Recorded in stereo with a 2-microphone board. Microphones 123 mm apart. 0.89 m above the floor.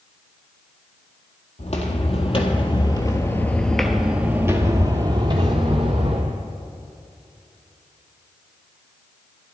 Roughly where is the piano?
No piano in this recording.